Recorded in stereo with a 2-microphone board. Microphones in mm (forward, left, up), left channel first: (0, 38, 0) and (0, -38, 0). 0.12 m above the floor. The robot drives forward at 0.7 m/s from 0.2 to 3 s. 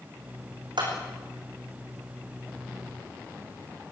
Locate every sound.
0.8 s a clap: 80° right, 7 m